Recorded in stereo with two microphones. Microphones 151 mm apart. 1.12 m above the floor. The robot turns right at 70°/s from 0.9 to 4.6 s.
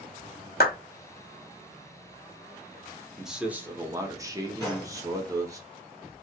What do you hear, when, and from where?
0.6 s a clap: 75° left (ahead or behind), 0.6 m
3.2 s a man speaking: centre (ahead or behind), 0.7 m; by 5.6 s 20° right (ahead or behind), 0.7 m
4.6 s a gunshot: 20° left (ahead or behind), 1.6 m